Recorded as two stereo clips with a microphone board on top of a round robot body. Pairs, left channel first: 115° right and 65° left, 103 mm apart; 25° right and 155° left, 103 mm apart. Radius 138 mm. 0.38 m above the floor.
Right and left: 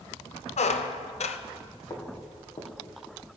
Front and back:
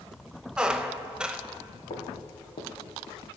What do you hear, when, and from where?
0.6 s a squeak: 120° right, 0.6 m
1.9 s footsteps: 60° right, 2.5 m